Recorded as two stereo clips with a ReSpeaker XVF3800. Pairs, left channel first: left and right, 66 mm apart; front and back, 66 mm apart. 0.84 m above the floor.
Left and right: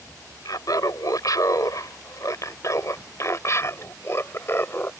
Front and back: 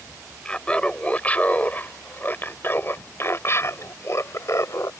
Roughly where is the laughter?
Left.